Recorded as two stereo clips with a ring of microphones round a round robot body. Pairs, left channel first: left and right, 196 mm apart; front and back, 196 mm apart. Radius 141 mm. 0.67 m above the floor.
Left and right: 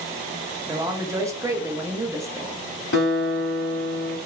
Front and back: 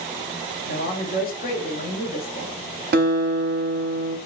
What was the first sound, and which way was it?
A man speaking, 20° right.